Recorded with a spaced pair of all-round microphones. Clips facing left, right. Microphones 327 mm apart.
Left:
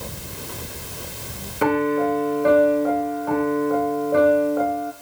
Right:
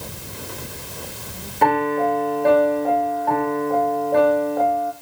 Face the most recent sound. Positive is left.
turn(degrees=10)  # may be behind; listen again after turning